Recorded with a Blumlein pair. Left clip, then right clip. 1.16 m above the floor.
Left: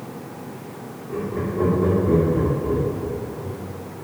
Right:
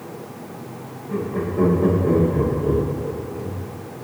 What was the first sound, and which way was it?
Laughter, 45° right.